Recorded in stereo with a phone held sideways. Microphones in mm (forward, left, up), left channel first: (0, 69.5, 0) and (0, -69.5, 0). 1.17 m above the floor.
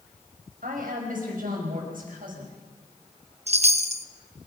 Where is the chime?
50° right (ahead or behind), 0.8 m.